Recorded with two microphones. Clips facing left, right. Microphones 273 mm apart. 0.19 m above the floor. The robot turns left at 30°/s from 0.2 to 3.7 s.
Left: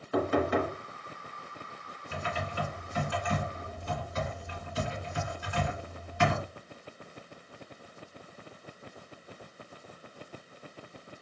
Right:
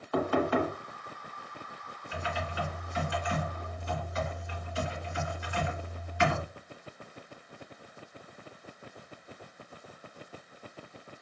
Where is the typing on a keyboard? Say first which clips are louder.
Left 1 dB; 115° left, 1.4 m; by 6.4 s 70° left, 1.4 m.